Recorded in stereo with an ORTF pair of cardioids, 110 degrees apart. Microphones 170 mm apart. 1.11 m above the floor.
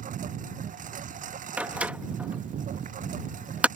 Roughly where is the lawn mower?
Ahead right.